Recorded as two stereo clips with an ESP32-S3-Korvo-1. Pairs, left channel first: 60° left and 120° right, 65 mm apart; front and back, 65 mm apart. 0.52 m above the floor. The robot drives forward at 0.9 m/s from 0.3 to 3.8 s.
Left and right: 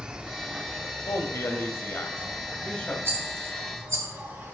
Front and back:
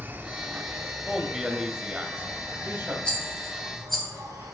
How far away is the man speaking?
About 1.9 m.